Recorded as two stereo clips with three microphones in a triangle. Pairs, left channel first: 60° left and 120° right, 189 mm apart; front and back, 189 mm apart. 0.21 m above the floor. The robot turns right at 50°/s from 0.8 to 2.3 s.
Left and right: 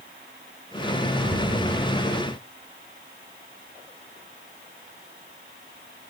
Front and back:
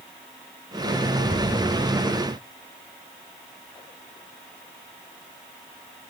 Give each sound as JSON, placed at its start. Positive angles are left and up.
{"t": 1.2, "sound": "an explosion", "azimuth_deg": -130, "distance_m": 5.5}